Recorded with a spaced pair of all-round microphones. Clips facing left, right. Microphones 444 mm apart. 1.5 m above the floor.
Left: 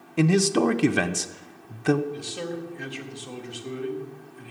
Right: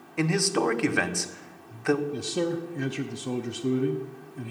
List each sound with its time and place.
0.2 s a man speaking: 55° left (ahead or behind), 0.6 m
2.1 s a man speaking: 60° right (ahead or behind), 0.7 m